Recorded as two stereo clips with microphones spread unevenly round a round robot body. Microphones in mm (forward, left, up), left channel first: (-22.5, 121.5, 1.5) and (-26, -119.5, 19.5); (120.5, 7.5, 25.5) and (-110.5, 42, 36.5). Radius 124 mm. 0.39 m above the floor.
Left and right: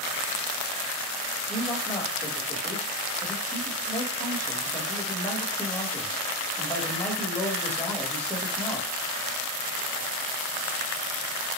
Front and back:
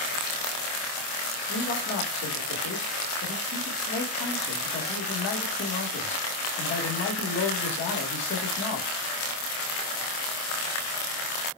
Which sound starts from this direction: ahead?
A man speaking, at 1.5 s.